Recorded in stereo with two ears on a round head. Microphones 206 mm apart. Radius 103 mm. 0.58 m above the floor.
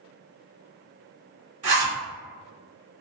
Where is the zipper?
35° right (ahead or behind), 1.6 m.